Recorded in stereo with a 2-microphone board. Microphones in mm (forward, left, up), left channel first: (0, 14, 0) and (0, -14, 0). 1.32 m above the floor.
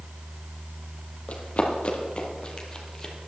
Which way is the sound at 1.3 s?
45° left (ahead or behind).